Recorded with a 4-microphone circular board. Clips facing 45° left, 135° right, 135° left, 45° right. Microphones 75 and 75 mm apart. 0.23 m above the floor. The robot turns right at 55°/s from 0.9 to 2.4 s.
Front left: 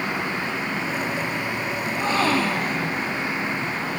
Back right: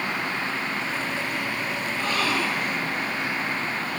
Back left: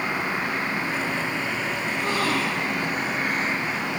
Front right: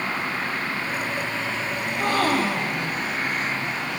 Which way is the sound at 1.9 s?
30° right.